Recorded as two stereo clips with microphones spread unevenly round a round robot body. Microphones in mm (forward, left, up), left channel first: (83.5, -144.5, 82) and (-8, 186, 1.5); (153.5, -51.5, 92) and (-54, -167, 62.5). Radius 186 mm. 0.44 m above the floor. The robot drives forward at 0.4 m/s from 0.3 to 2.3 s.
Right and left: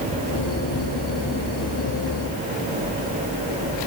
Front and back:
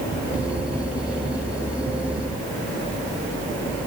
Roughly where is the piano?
I don't hear a piano.